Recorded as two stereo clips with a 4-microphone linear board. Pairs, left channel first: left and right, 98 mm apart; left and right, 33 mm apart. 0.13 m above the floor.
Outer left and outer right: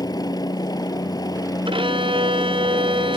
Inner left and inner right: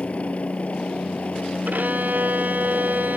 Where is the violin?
60° right (ahead or behind).